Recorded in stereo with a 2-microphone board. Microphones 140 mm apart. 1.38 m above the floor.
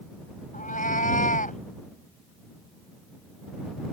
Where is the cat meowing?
70° left (ahead or behind).